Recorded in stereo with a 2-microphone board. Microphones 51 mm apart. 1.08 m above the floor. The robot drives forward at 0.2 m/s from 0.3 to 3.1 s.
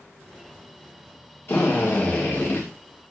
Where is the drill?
50° left (ahead or behind), 1.8 m; by 2.7 s 45° left (ahead or behind), 1.9 m.